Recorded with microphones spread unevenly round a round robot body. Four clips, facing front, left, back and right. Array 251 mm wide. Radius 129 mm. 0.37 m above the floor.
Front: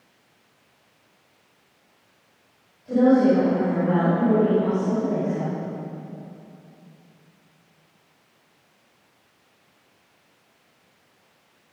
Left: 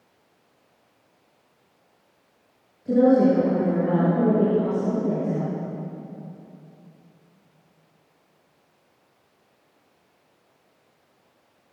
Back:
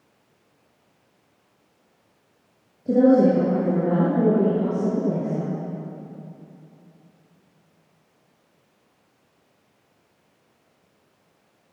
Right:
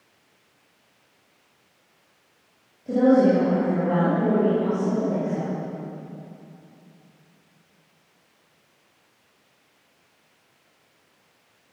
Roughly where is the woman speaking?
Behind left.